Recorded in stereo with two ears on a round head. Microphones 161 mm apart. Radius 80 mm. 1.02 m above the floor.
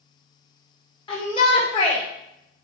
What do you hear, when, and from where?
1.1 s a shout: 30° left (ahead or behind), 3 m